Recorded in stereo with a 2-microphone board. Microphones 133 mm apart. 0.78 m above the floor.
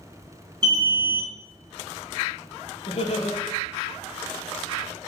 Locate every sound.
0.6 s an alarm: 35° right (ahead or behind), 1.4 m
2.9 s laughter: 50° left (ahead or behind), 0.6 m